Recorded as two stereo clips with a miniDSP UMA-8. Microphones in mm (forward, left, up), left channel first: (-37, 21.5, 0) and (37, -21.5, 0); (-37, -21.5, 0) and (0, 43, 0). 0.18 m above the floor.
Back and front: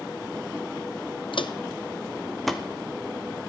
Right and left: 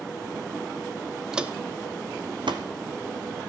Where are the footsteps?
140° left, 0.6 m; by 2.6 s 55° left, 0.9 m.